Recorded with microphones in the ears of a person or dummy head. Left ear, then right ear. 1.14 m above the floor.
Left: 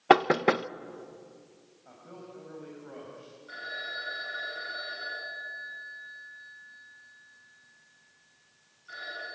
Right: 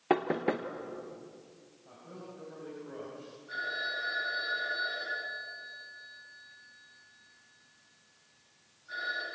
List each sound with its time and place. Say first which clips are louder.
0.1 s knocking: left 8 dB; 50° left (ahead or behind), 0.6 m
1.9 s a man speaking: left 1 dB; 60° left (ahead or behind), 6 m
3.5 s a phone ringing: right 2 dB; 70° left (ahead or behind), 9 m